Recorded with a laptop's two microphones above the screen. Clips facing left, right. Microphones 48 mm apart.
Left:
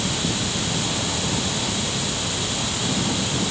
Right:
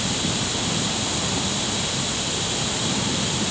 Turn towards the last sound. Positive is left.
No sound to turn to.